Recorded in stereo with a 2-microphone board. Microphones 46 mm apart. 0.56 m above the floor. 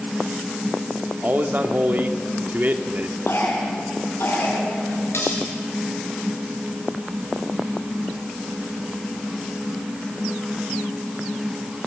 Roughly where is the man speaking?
Right.